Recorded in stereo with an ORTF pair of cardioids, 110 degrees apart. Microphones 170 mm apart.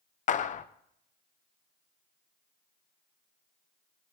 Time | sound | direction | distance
0.3 | a clap | 45° left | 1.0 m